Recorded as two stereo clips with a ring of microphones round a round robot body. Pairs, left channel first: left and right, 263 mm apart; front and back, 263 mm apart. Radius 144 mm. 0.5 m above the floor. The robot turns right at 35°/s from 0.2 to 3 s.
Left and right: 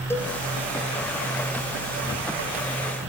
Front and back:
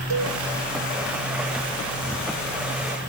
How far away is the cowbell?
About 1.0 m.